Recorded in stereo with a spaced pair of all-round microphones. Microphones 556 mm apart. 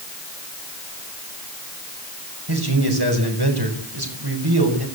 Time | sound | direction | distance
2.5 | a man speaking | 45° right (ahead or behind) | 6 m